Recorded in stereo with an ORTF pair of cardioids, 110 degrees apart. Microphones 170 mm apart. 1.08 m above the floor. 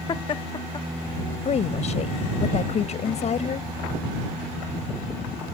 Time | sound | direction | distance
0.1 | laughter | 30° left | ?
1.4 | a woman speaking | 40° left | ?